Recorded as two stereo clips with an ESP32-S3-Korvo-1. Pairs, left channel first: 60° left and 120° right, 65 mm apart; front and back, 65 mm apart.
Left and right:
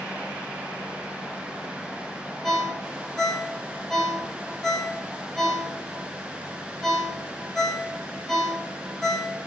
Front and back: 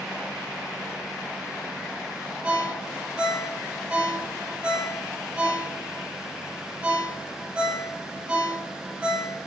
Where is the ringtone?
140° left, 0.8 m.